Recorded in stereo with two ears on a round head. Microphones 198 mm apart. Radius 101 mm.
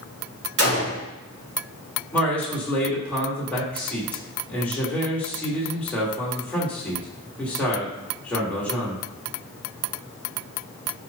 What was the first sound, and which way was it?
A gunshot, 50° right (ahead or behind).